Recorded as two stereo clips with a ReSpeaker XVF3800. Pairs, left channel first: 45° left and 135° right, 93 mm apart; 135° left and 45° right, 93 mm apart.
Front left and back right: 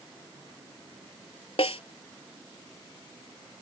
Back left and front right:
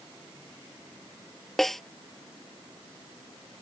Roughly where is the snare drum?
Ahead left.